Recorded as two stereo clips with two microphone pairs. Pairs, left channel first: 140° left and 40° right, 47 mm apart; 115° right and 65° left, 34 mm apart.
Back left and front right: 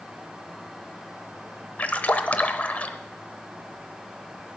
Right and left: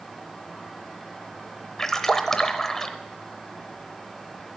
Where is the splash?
Straight behind, 0.7 m.